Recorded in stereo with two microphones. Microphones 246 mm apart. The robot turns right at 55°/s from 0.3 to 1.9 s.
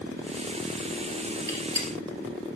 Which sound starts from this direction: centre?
A gunshot, at 1.5 s.